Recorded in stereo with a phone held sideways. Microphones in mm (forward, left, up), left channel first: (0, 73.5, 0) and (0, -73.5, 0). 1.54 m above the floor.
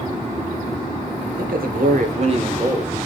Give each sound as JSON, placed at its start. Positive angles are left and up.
{"t": 1.4, "sound": "a man speaking", "side_deg": -85, "distance_m": 1.1}